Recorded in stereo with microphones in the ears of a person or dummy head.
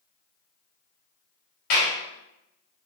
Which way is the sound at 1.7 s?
55° left (ahead or behind).